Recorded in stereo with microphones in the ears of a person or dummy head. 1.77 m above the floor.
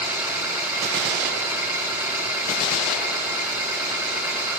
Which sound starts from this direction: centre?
An engine running, at 0.0 s.